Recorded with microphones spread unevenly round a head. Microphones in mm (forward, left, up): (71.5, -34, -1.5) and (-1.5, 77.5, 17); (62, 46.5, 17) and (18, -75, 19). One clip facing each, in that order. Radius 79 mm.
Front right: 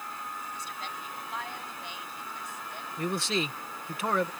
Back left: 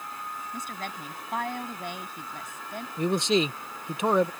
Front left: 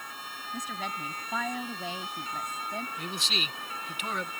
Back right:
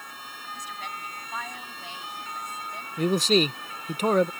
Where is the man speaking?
160° right.